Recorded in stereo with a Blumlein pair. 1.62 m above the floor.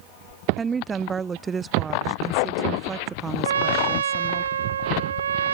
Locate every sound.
0.6 s a woman speaking: 15° right
3.4 s a trumpet: 70° right